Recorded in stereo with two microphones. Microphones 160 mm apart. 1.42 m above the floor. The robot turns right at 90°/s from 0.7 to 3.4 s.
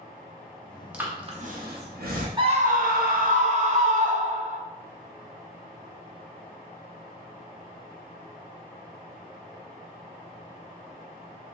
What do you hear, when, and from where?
0.9 s breathing: 5° right (ahead or behind), 0.7 m; by 2.3 s 50° right (ahead or behind), 0.7 m
2.4 s a scream: 145° right, 0.8 m; by 4.6 s 55° right, 0.8 m